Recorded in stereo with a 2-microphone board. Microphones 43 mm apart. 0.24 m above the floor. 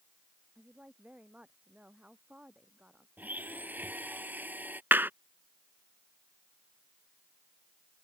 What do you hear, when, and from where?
0.6 s a woman speaking: 25° right (ahead or behind)
3.2 s a blender: 40° right (ahead or behind)
4.9 s a clap: 50° right (ahead or behind)